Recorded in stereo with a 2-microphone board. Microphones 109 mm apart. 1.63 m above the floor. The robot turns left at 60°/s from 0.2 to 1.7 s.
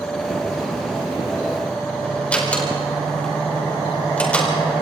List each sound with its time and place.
2.3 s a door slam: 10° left (ahead or behind), 4.5 m